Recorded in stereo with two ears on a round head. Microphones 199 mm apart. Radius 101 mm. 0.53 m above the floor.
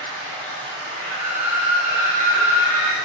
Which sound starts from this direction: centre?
Running water, at 0.0 s.